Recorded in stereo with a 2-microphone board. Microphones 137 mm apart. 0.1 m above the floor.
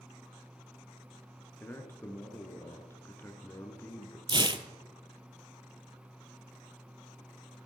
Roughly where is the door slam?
No door slam in this recording.